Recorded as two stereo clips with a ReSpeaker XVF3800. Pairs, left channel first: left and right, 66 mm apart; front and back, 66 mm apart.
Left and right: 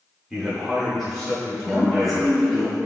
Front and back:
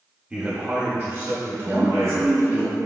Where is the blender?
I don't hear a blender.